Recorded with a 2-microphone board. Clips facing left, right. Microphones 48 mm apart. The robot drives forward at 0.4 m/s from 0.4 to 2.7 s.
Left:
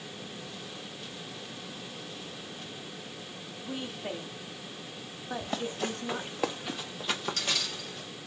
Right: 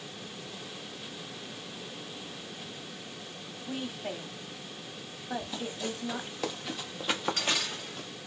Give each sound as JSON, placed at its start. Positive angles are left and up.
{"t": 3.6, "sound": "a woman speaking", "side_deg": 0, "distance_m": 1.0}
{"t": 5.4, "sound": "running footsteps", "side_deg": 60, "distance_m": 1.3}